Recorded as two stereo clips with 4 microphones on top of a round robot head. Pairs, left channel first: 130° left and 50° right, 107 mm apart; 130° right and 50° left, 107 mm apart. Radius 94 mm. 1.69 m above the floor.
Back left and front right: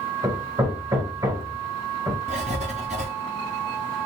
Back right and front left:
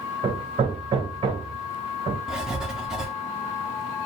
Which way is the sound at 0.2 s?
5° left.